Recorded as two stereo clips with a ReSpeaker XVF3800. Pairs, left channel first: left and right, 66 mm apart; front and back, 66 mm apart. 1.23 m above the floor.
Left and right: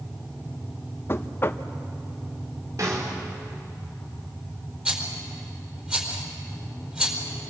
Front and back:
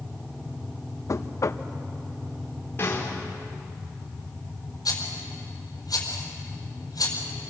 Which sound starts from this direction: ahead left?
Knocking, at 1.1 s.